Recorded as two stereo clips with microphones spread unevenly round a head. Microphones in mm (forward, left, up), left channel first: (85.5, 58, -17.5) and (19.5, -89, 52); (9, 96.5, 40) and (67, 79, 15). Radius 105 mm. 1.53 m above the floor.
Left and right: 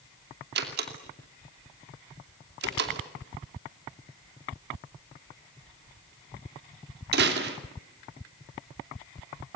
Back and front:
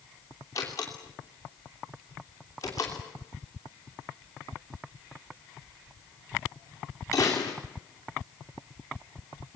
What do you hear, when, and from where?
0.6 s a door slam: 130° right, 3 m